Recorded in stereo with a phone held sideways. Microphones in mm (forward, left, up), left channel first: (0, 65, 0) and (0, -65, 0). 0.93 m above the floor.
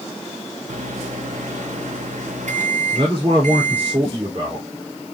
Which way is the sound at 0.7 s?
75° right (ahead or behind).